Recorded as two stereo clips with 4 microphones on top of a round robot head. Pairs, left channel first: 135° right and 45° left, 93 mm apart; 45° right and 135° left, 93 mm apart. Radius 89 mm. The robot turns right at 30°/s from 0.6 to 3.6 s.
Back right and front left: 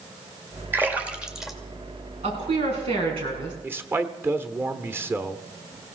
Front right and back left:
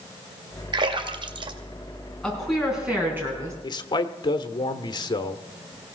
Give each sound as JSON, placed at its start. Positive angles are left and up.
{"t": 0.7, "sound": "a splash", "azimuth_deg": 110, "distance_m": 1.9}
{"t": 2.2, "sound": "a woman speaking", "azimuth_deg": 40, "distance_m": 5.5}
{"t": 3.6, "sound": "a man speaking", "azimuth_deg": -20, "distance_m": 1.1}